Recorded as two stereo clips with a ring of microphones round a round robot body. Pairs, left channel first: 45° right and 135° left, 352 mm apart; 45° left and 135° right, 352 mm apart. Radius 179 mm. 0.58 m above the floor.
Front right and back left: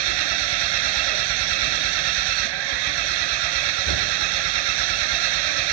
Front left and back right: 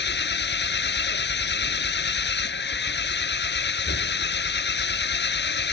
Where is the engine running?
110° left.